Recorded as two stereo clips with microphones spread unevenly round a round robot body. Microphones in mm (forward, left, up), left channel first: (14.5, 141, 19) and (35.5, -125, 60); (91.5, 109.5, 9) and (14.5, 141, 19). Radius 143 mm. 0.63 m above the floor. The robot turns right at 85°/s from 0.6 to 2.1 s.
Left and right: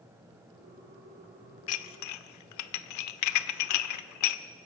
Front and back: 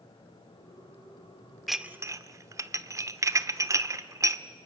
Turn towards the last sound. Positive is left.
turn(degrees=100)